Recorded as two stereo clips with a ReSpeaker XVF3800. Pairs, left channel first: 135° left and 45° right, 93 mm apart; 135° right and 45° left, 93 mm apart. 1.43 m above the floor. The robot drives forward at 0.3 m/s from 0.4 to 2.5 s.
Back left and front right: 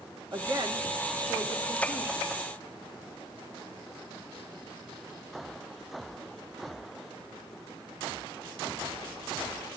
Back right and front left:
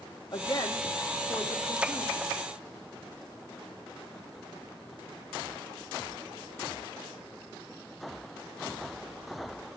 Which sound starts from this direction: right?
A woman speaking, at 0.3 s.